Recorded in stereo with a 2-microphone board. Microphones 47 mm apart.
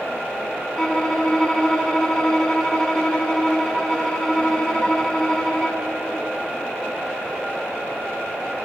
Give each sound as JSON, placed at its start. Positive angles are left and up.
{"t": 0.8, "sound": "a violin", "side_deg": 15, "distance_m": 0.9}